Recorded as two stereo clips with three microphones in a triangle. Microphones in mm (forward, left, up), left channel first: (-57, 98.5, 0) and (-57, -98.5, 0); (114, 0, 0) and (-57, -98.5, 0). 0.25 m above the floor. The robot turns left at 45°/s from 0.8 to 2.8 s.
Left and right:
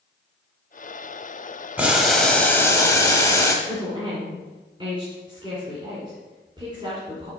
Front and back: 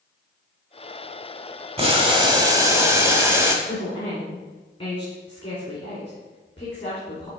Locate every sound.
1.8 s boiling: 165° right, 1.2 m; by 3.5 s 150° left, 1.2 m
3.6 s a woman speaking: 30° right, 2.5 m